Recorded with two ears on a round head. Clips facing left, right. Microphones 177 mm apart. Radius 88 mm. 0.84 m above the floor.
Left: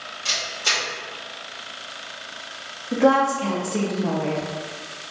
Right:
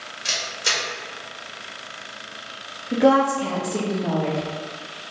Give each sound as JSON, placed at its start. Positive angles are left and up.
{"t": 0.2, "sound": "a camera shutter", "side_deg": -15, "distance_m": 1.5}
{"t": 2.9, "sound": "a woman speaking", "side_deg": -5, "distance_m": 0.6}